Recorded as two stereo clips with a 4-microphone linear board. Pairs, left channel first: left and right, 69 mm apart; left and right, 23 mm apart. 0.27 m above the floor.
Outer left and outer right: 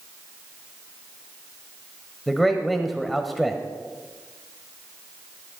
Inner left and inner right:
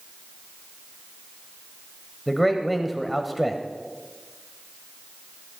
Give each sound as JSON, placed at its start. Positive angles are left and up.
{"t": 2.3, "sound": "a man speaking", "side_deg": 0, "distance_m": 0.9}